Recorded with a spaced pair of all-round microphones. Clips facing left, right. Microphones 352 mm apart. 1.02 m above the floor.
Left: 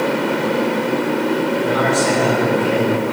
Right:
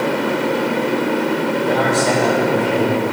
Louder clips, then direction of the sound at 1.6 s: Even; 20° left (ahead or behind).